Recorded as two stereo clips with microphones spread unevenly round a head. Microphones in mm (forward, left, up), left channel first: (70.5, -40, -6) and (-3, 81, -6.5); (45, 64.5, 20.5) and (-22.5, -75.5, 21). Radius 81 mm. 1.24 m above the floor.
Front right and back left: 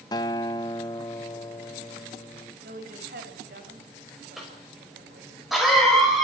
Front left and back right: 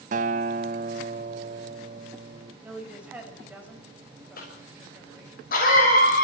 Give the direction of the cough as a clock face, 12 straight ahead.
11 o'clock.